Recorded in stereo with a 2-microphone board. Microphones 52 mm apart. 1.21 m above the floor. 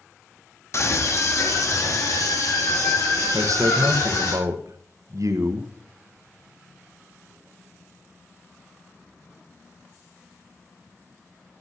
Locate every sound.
0.7 s a scream: 50° left (ahead or behind), 1.8 m; by 4.3 s 75° left (ahead or behind), 4 m
3.3 s a man speaking: 65° right (ahead or behind), 1.1 m